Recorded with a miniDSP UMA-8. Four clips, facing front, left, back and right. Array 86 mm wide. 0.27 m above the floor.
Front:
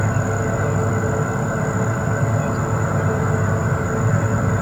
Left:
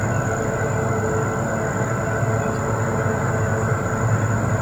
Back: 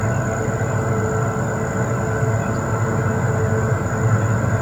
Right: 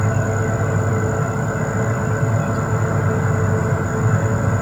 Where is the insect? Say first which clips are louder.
Right 1 dB, even; 10° right, 1.8 m.